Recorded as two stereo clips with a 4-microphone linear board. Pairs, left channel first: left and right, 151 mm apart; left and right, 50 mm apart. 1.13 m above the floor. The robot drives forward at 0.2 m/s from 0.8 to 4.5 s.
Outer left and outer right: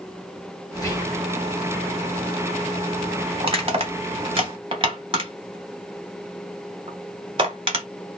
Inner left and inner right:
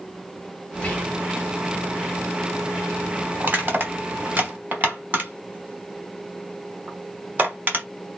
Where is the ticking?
I don't hear ticking.